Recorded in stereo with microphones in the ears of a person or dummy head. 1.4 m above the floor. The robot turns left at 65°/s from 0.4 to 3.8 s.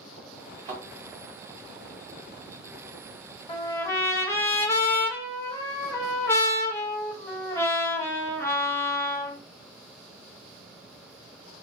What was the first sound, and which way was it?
A thud, 30° right (ahead or behind).